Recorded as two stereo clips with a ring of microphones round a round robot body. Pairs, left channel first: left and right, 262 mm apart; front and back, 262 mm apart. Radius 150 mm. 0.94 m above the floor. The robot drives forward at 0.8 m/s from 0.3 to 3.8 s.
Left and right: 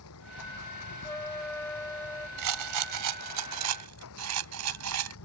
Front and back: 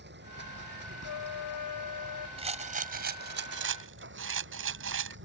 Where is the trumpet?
10° left.